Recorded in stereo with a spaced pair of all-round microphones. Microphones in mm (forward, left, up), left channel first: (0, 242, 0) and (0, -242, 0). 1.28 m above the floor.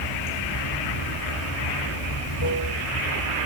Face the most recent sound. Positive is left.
turn(degrees=75)  # may be behind; listen again after turning